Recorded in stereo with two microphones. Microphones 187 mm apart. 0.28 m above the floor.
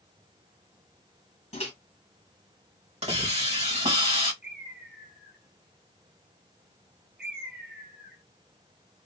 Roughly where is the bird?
Right.